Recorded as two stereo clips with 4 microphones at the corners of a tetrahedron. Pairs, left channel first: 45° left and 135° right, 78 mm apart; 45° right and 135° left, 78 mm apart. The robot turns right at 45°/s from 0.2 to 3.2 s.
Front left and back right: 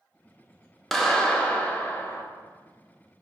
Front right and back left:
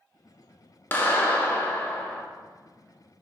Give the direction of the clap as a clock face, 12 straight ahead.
1 o'clock.